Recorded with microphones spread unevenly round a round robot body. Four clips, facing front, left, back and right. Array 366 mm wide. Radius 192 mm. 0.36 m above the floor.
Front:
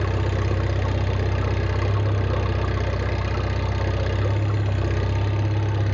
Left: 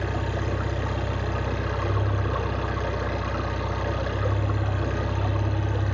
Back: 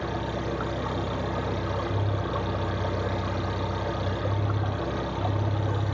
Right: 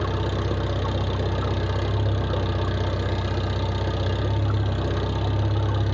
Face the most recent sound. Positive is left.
turn(degrees=-45)